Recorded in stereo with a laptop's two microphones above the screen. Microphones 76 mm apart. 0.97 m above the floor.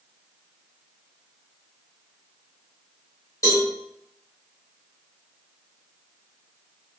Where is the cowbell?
45° left (ahead or behind), 1.8 m.